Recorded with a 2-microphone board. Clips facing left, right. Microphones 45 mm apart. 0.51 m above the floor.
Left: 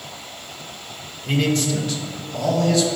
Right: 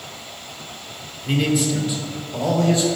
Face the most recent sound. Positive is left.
turn(degrees=-30)  # may be behind; listen again after turning